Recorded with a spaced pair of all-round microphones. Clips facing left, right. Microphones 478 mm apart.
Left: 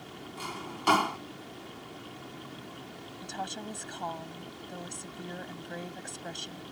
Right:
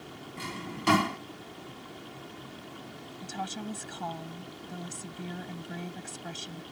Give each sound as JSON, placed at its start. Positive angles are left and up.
{"t": 0.4, "sound": "a drawer", "side_deg": -40}
{"t": 3.2, "sound": "a woman speaking", "side_deg": -25}